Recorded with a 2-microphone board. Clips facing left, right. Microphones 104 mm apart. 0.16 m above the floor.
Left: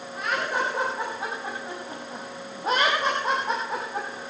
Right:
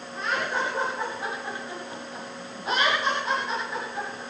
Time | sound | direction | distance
0.2 | laughter | 15° left (ahead or behind) | 6 m